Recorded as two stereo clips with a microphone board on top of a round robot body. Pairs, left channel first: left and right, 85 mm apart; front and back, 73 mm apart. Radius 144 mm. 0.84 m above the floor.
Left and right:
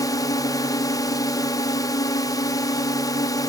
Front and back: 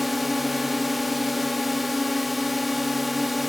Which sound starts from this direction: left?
A drone, at 0.0 s.